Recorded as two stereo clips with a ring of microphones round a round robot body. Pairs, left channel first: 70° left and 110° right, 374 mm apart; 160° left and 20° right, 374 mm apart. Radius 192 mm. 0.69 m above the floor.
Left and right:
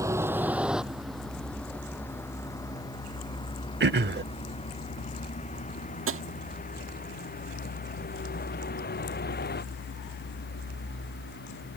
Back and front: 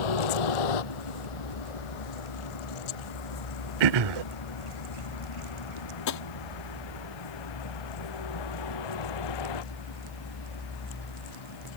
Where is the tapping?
165° right.